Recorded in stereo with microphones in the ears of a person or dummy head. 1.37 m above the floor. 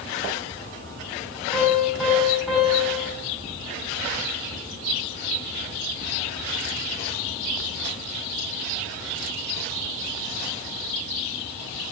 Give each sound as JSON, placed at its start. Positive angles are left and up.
{"t": 1.5, "sound": "a piano", "side_deg": -5, "distance_m": 6.5}